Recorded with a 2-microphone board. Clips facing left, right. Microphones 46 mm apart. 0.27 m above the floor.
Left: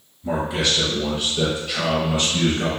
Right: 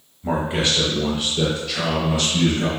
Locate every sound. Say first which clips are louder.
0.2 s a man speaking: right 1 dB; 40° right (ahead or behind), 1.1 m; by 2.7 s 45° left (ahead or behind), 1.2 m